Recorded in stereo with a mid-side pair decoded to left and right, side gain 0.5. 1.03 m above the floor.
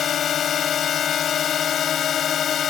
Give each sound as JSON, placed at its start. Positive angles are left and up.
{"t": 0.0, "sound": "a drone", "azimuth_deg": 55}